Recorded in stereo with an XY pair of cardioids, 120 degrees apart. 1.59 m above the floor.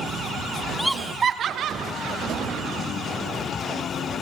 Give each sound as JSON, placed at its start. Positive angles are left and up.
{"t": 0.8, "sound": "laughter", "azimuth_deg": 10, "distance_m": 0.7}